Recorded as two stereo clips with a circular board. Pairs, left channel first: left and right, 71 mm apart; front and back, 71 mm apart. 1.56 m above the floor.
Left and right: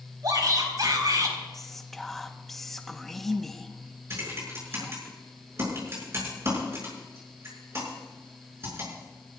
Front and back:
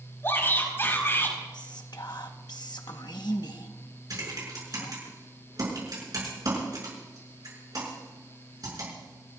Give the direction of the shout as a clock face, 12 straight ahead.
2 o'clock.